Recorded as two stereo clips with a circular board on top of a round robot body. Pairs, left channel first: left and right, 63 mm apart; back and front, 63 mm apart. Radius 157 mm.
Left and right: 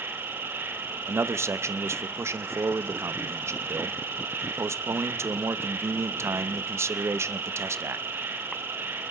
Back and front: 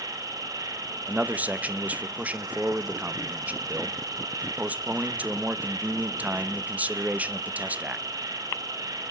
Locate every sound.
0.0 s an insect: 30° right, 1.7 m
1.1 s a man speaking: 60° right, 1.1 m